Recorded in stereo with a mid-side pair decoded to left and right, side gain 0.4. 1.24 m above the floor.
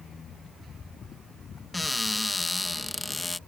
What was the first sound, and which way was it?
A cupboard door, 15° left.